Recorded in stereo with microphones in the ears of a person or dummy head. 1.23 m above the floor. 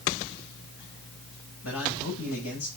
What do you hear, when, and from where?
1.6 s a man speaking: 80° left, 5 m